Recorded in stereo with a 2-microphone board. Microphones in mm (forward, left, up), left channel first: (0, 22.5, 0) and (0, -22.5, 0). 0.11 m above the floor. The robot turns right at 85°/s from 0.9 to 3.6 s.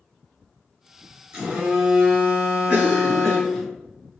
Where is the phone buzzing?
145° right, 1.1 m; by 3.7 s 50° left, 1.1 m.